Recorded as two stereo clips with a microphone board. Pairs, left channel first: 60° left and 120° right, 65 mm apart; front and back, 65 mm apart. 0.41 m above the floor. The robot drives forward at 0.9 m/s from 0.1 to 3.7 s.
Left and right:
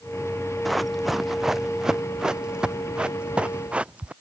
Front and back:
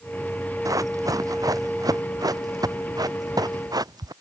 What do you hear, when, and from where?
0.7 s running footsteps: 150° left; by 4.1 s 170° left